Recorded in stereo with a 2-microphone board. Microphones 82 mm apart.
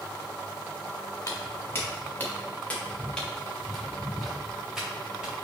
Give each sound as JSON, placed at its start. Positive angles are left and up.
{"t": 1.3, "sound": "footsteps", "side_deg": 35, "distance_m": 3.0}